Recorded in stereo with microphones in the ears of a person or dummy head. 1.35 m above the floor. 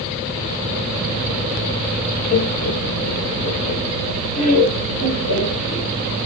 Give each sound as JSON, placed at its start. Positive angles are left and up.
{"t": 2.3, "sound": "laughter", "side_deg": 80, "distance_m": 0.7}